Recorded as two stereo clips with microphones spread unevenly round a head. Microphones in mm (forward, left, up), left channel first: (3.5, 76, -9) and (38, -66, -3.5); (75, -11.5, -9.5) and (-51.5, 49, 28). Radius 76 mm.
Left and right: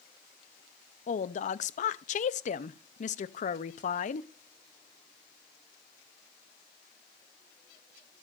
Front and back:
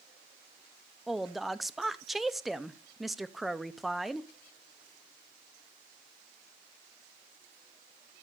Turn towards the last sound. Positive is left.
turn(degrees=75)